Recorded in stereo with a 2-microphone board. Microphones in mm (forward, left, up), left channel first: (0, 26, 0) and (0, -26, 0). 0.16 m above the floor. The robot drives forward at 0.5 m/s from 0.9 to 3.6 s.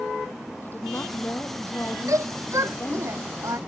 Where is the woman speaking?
40° left (ahead or behind); by 3.1 s 45° left (ahead or behind).